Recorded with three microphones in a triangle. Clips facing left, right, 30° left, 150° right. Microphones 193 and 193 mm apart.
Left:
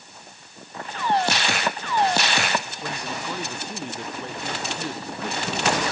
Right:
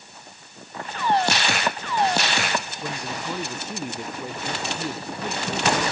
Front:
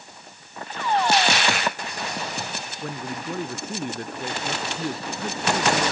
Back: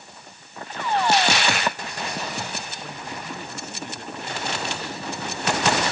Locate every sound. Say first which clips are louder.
2.8 s a man speaking: even, front 4 dB; 5° right